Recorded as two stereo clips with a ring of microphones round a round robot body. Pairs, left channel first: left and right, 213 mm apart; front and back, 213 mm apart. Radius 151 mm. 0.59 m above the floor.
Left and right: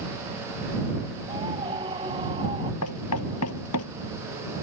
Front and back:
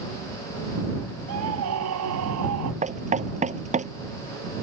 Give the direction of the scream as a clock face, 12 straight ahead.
6 o'clock.